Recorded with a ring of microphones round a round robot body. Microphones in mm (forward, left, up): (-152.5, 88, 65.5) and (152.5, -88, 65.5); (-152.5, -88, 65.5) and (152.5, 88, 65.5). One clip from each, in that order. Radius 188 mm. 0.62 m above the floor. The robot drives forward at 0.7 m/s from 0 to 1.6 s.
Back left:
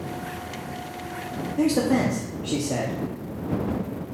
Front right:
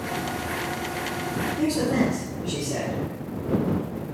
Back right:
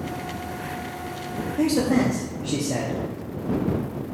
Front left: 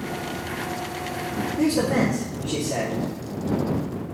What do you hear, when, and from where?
1.6 s a man speaking: 155° left, 0.9 m